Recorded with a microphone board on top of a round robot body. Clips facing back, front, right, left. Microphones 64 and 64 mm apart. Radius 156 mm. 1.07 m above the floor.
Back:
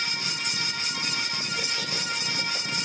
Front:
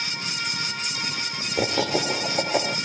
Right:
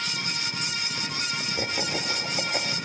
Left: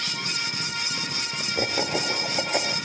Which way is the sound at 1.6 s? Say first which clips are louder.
Front 9 dB, left 6 dB; 15° left.